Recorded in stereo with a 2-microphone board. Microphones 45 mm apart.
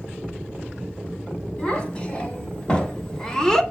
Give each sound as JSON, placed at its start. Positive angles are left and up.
{"t": 1.6, "sound": "a child speaking", "side_deg": 30, "distance_m": 3.5}